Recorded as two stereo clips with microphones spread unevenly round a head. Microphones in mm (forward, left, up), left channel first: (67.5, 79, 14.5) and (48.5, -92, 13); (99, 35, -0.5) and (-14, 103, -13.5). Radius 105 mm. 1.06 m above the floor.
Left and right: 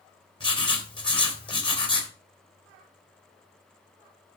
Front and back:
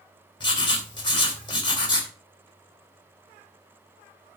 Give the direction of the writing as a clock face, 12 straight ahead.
11 o'clock.